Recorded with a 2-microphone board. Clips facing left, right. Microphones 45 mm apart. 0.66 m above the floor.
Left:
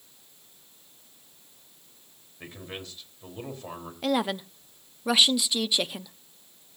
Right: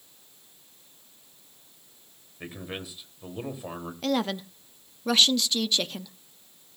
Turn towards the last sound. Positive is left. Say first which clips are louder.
# left 1 dB
turn(degrees=10)  # may be behind; listen again after turning